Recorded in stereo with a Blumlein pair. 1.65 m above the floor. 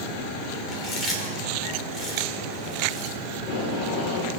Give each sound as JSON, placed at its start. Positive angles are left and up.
{"t": 0.7, "sound": "chewing", "azimuth_deg": 10, "distance_m": 3.5}
{"t": 3.4, "sound": "tape being pulled", "azimuth_deg": 35, "distance_m": 3.0}